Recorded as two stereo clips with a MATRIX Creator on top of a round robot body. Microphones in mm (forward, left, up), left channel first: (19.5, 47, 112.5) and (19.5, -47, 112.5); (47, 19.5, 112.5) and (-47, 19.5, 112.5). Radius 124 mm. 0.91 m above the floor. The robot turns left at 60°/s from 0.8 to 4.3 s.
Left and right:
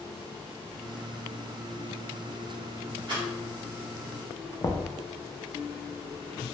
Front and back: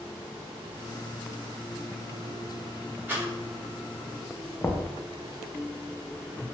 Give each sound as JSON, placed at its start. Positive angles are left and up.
{"t": 3.1, "sound": "a rattle", "azimuth_deg": -110, "distance_m": 1.3}
{"t": 4.6, "sound": "knocking", "azimuth_deg": 55, "distance_m": 0.5}